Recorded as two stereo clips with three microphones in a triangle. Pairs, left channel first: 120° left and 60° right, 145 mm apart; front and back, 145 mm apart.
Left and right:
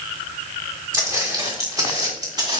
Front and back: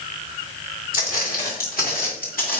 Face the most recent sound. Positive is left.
turn(degrees=0)